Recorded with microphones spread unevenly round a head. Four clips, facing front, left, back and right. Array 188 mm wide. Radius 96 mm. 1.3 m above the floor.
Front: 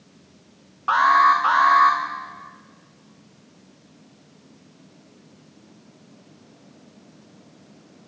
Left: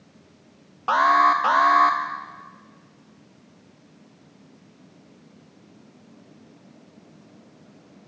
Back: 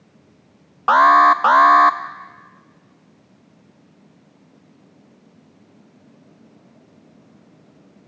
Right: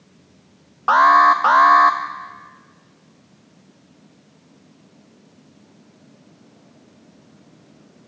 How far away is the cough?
I don't hear a cough.